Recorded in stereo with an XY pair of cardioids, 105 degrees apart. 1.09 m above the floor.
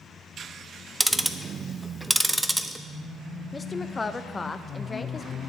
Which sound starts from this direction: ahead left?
A woman speaking, at 3.5 s.